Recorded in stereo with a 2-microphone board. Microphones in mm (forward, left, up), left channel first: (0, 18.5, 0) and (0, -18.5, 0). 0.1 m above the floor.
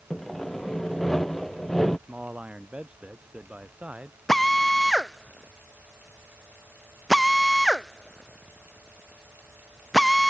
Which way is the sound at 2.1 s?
35° right (ahead or behind).